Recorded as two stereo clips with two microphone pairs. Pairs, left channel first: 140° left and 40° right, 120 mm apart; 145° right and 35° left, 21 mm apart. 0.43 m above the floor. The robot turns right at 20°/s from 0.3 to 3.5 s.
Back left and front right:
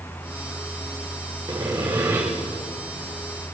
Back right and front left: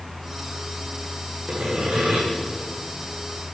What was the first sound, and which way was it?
Sawing, 20° left.